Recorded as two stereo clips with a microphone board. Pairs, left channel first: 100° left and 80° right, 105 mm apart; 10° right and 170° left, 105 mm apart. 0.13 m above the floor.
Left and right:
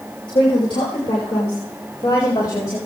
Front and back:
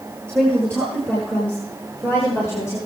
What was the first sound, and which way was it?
A woman speaking, 70° left.